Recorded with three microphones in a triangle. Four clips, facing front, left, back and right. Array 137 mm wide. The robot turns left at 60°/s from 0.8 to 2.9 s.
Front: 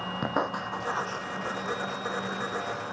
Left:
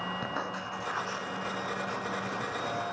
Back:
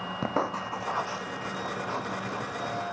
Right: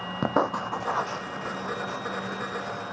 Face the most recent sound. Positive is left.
turn(degrees=130)